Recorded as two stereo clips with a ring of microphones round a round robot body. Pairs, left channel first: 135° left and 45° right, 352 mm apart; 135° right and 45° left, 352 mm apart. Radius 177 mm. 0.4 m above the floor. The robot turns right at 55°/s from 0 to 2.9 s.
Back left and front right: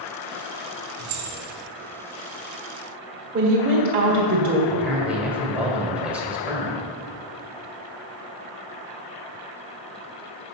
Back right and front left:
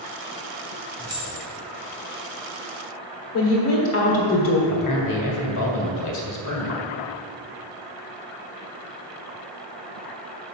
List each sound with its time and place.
1.0 s keys jangling: 40° right, 2.5 m; by 1.4 s 20° right, 2.5 m
3.3 s a woman speaking: 105° right, 1.5 m
4.7 s a man speaking: 130° right, 1.9 m